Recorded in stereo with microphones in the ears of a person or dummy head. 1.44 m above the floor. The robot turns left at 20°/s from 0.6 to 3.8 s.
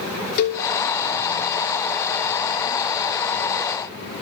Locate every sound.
0.4 s a cowbell: 50° left (ahead or behind), 0.7 m